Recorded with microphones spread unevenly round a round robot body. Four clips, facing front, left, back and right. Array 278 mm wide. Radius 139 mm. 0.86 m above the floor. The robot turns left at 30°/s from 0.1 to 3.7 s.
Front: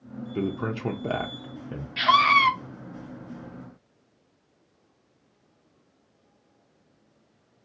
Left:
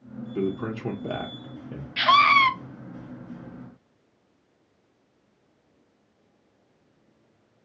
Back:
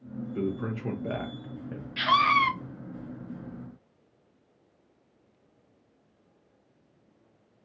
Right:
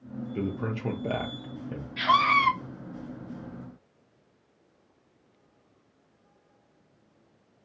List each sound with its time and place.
0.3 s a man speaking: 30° left, 0.5 m; by 1.9 s 15° right, 0.5 m
2.0 s a scream: 95° left, 0.7 m; by 2.5 s 75° left, 0.7 m